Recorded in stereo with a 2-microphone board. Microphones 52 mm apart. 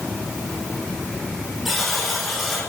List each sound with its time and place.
1.6 s a buzzer: centre (ahead or behind), 5 m